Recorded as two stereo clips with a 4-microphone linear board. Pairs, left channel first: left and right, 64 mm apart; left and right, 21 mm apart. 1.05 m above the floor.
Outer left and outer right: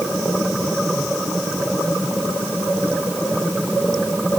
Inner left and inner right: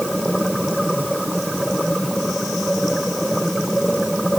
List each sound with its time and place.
Only background noise.